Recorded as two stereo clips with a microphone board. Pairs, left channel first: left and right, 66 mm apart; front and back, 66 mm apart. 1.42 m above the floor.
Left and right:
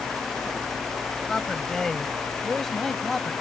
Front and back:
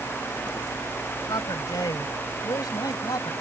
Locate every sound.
1.3 s a man speaking: 10° left; by 3.3 s 5° left